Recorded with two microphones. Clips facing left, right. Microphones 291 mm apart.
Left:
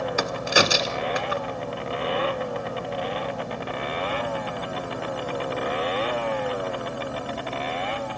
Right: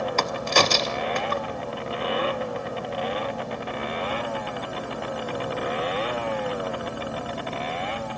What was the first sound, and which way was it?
A crack, 10° left (ahead or behind).